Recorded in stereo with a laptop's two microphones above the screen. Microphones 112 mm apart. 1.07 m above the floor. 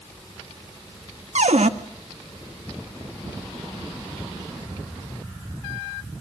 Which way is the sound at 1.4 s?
85° right.